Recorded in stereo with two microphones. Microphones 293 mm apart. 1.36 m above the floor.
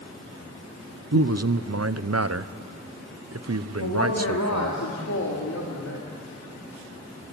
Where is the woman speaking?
70° left (ahead or behind), 2.5 m.